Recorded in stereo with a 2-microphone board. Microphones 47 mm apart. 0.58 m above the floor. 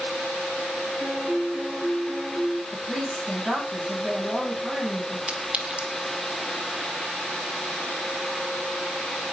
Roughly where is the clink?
Right.